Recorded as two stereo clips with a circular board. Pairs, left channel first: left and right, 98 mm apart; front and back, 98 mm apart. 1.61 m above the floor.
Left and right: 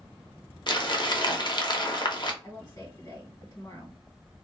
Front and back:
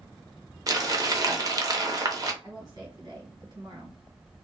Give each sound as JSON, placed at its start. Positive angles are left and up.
{"t": 0.7, "sound": "crumpling", "azimuth_deg": 130, "distance_m": 0.6}
{"t": 2.4, "sound": "a woman speaking", "azimuth_deg": 135, "distance_m": 1.6}